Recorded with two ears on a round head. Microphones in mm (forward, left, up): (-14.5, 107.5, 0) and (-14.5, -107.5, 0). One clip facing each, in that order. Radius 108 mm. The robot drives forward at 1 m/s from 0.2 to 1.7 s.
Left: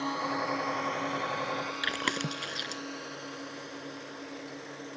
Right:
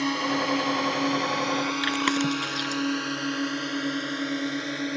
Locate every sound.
0.0 s a drone: 35° right (ahead or behind); by 5.0 s 80° right
1.8 s chewing: centre (ahead or behind)